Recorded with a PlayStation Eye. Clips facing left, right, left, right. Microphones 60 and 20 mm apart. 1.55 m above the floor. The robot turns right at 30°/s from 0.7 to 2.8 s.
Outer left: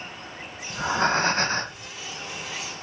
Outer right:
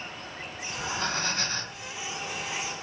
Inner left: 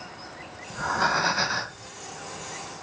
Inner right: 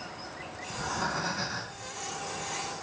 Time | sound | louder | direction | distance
0.7 | breathing | outer left 9 dB, inner left 8 dB | 70° left | 0.7 m